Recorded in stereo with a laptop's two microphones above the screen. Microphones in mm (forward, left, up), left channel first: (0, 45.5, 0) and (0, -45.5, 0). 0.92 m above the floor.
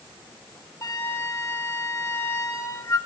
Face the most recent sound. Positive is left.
turn(degrees=35)  # may be behind; listen again after turning